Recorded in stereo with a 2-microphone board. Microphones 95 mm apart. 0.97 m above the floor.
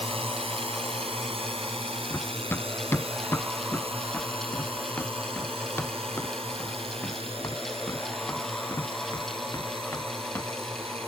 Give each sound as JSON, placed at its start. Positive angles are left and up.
{"t": 0.0, "sound": "a drone", "side_deg": -85}
{"t": 2.1, "sound": "running footsteps", "side_deg": 20}